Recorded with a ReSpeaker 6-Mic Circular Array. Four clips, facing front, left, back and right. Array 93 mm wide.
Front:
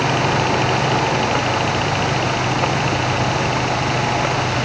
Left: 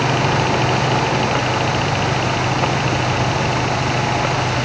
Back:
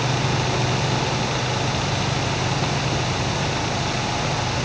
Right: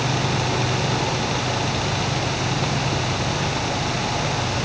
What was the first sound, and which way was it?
Only background noise.